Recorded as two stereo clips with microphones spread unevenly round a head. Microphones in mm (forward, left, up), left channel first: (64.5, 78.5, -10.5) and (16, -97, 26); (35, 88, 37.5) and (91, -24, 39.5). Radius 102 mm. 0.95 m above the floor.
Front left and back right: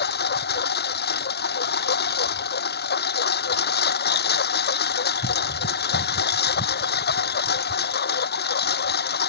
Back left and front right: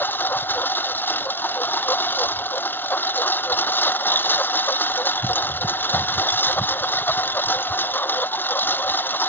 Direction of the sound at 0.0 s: 40° left.